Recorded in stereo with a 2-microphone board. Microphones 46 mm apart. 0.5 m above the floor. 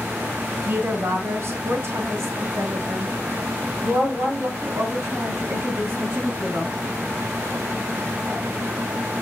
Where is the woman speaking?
55° right (ahead or behind), 2 m.